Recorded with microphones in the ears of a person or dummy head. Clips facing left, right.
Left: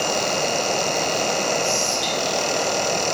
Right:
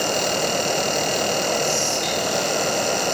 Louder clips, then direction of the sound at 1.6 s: Even; 15° left (ahead or behind).